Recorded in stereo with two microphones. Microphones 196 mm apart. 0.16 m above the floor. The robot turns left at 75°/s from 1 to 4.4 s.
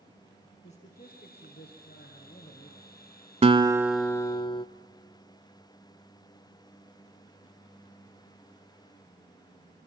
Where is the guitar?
140° right, 0.6 m; by 4.7 s 150° left, 0.6 m.